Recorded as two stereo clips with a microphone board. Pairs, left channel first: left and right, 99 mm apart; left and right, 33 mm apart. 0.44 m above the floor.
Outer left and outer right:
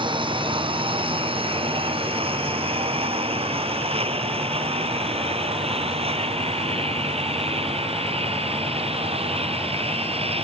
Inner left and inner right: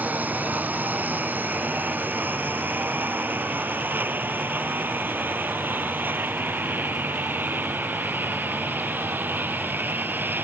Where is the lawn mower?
60° right (ahead or behind); by 10.5 s 85° right.